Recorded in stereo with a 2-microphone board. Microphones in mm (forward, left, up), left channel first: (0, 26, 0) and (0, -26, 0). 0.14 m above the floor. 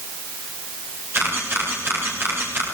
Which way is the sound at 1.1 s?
50° right (ahead or behind).